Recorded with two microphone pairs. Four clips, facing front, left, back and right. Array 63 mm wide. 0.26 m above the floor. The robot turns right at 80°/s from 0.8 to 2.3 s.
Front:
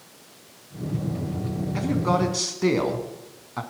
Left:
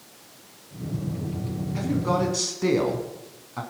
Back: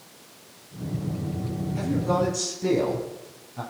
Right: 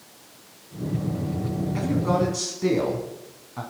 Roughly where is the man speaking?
Ahead right.